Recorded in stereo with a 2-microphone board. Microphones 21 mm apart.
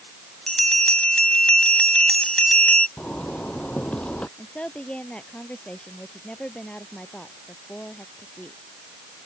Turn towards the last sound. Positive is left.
turn(degrees=55)  # may be behind; listen again after turning